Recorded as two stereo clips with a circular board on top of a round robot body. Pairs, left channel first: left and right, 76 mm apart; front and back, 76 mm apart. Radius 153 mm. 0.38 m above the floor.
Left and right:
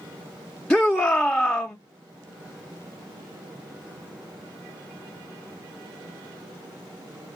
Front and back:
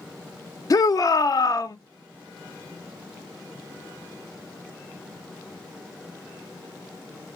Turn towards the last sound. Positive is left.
turn(degrees=15)